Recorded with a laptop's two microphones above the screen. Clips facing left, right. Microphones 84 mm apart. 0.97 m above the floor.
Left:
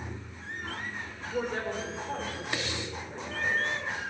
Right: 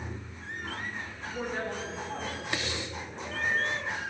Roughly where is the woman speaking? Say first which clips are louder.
Left 3 dB; left.